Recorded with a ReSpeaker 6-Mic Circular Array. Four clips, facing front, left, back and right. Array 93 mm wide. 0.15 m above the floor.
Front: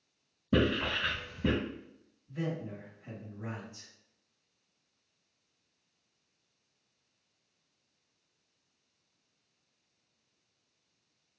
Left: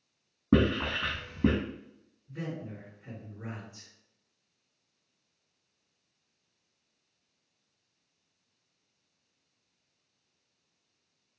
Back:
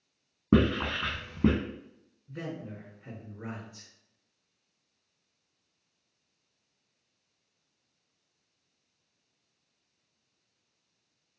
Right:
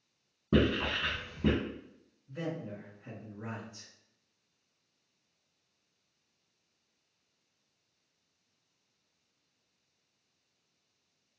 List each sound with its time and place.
0.5 s writing: 155° left, 1.5 m
2.3 s a man speaking: 170° left, 1.8 m